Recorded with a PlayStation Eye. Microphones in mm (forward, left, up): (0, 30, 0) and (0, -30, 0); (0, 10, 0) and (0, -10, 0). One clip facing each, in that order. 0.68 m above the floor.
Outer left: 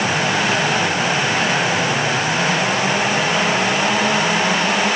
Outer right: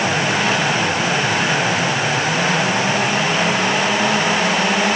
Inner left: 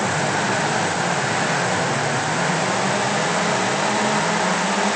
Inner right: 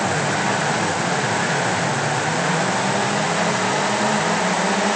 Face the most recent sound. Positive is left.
No sound to turn to.